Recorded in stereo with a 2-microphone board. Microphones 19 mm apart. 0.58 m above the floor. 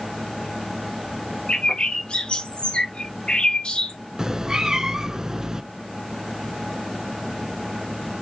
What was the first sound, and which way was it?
A bird, 80° left.